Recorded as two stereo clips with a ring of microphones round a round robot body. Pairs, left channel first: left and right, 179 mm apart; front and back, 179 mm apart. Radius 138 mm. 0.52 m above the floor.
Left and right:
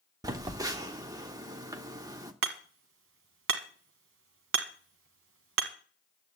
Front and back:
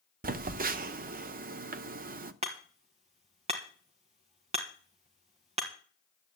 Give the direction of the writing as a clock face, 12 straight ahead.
I don't hear writing.